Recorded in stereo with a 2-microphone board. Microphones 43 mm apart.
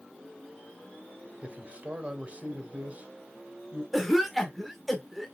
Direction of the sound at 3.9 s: Centre (ahead or behind).